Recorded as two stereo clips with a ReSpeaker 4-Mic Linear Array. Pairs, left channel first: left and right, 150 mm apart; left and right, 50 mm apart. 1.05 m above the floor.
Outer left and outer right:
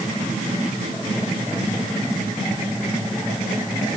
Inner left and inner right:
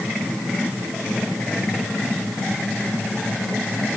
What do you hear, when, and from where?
Only background noise.